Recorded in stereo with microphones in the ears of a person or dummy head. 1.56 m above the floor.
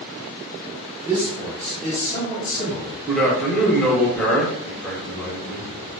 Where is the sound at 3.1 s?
Centre (ahead or behind), 1.1 m.